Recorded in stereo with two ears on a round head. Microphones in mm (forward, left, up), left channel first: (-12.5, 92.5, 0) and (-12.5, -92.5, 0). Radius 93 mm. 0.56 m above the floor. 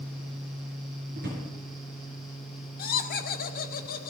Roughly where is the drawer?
Right.